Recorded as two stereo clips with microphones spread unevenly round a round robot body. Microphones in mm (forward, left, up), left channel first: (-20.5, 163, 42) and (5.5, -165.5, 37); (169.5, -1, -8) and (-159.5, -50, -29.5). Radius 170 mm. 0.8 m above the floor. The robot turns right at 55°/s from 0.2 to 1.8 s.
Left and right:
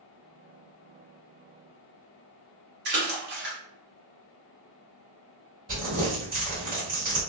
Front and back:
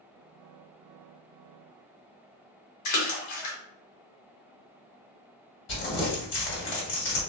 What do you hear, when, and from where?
2.9 s a splash: 25° right, 0.9 m
5.7 s crumpling: 20° right, 1.5 m